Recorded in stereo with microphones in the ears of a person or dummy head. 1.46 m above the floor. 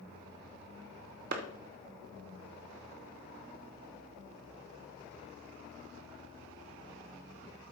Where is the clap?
50° right (ahead or behind), 1.0 m.